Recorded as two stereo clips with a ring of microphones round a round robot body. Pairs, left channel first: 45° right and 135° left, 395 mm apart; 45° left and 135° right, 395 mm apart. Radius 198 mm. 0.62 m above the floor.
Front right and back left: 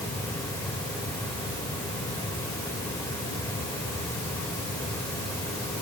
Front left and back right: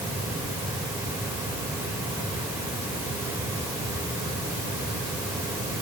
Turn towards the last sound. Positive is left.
No sound to turn to.